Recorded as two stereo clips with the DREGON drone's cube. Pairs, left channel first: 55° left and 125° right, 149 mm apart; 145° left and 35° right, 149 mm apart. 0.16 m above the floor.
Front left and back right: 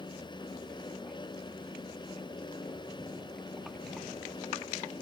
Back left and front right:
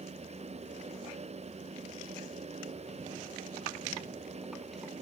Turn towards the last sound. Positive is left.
No sound to turn to.